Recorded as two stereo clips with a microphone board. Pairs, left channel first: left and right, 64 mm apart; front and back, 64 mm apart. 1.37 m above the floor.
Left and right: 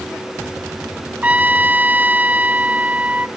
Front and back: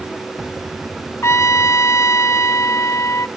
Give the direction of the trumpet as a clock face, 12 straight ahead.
1 o'clock.